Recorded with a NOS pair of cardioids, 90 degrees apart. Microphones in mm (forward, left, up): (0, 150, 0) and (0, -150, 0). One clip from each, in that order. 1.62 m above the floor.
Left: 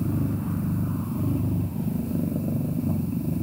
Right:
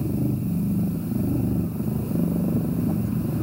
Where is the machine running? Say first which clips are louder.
Right 2 dB; 5° right, 2.5 m.